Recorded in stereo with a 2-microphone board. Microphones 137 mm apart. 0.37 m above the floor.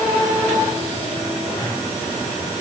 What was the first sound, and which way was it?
Only background noise.